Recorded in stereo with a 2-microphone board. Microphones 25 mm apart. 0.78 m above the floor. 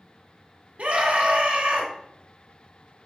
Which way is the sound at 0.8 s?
70° right (ahead or behind).